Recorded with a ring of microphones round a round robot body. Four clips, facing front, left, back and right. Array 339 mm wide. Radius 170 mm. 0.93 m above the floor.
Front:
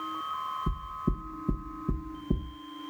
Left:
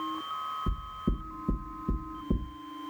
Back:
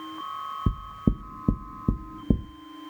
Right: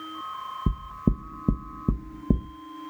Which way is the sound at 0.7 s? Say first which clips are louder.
Right 7 dB, back 5 dB; 135° right.